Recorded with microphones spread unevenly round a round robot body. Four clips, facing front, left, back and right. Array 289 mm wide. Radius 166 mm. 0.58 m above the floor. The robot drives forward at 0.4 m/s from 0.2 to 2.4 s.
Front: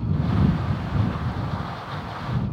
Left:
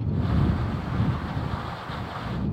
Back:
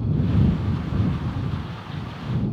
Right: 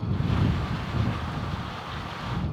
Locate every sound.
Only background noise.